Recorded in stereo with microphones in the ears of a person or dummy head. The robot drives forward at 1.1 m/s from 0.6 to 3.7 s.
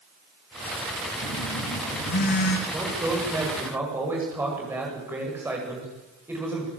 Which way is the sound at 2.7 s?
10° right (ahead or behind).